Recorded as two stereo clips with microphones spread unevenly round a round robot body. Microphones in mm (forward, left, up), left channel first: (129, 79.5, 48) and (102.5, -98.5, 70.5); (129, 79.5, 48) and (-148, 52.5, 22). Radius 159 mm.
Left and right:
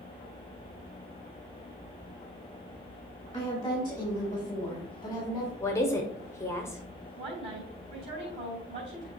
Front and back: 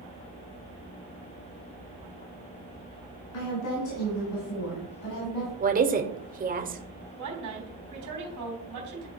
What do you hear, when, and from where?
3.3 s a woman speaking: 15° left, 4.5 m
5.6 s a woman speaking: 145° left, 1.1 m
7.2 s a woman speaking: 160° right, 3.5 m